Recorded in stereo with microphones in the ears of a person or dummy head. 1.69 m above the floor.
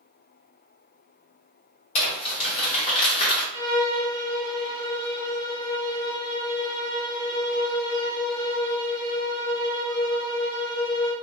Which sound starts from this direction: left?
Crumpling, at 1.9 s.